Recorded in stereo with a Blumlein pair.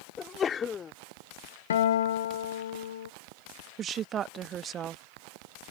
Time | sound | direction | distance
0.2 | a sneeze | 20° left | ?
1.7 | a guitar | 60° left | ?
3.8 | a woman speaking | 25° right | ?